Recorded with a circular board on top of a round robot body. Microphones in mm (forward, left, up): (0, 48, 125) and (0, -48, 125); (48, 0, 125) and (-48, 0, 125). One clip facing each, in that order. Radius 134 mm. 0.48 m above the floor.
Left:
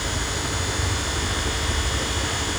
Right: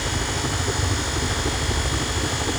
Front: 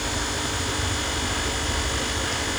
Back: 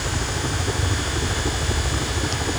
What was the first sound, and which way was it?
A helicopter, 135° right.